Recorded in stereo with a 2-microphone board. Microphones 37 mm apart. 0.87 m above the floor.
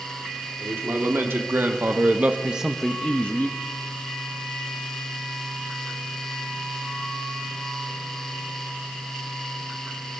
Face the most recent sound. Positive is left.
turn(degrees=55)  # may be behind; listen again after turning